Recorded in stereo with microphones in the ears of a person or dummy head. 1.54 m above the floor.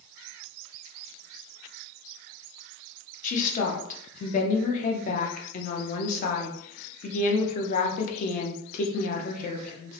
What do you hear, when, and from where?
3.2 s a woman speaking: 35° left (ahead or behind), 0.6 m